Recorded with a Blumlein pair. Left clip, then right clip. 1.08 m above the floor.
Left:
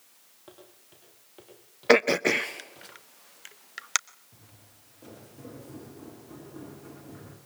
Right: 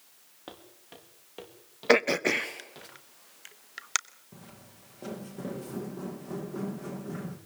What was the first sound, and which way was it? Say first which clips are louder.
Footsteps: right 5 dB; 65° right.